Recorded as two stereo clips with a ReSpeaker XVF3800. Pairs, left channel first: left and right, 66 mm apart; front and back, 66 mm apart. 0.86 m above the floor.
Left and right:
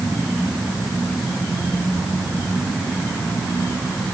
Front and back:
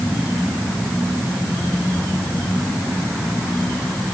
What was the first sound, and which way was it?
Only background noise.